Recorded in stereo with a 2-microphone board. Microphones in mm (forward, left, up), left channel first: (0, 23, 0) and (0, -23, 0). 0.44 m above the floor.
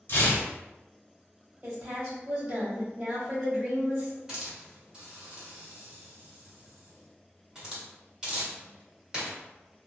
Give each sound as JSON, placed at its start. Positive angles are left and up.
{"t": 0.1, "sound": "tearing paper", "side_deg": 60, "distance_m": 1.0}
{"t": 1.6, "sound": "a woman speaking", "side_deg": -25, "distance_m": 1.6}
{"t": 4.3, "sound": "a hiss", "side_deg": -15, "distance_m": 1.8}